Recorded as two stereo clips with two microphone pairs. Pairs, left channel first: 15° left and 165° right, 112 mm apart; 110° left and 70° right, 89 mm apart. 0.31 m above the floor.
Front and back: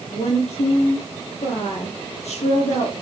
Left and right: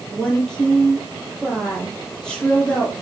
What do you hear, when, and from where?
0.1 s a woman speaking: 25° left, 7.5 m